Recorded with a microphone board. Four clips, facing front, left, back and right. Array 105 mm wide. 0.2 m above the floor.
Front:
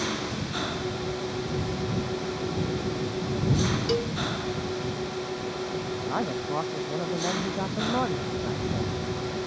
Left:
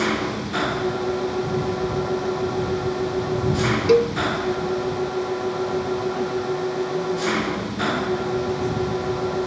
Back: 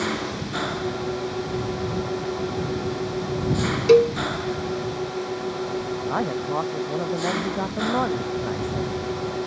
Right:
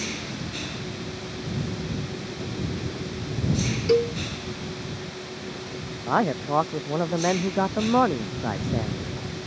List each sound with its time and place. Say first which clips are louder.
0.0 s an engine running: left 10 dB, back 4 dB; 110° left
3.9 s a cowbell: left 4 dB, back 13 dB; 160° left
6.1 s a man speaking: even, back 3 dB; 100° right